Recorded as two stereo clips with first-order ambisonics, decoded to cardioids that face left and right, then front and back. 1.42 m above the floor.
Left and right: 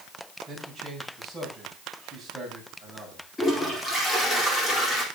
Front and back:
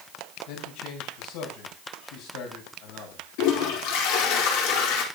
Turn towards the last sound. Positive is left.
turn(degrees=10)